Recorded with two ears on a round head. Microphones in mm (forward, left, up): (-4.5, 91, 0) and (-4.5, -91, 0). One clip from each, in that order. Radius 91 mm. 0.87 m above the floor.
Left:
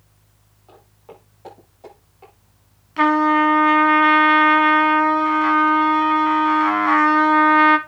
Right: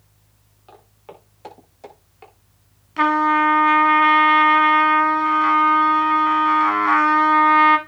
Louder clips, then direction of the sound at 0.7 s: Right 1 dB; 65° right (ahead or behind).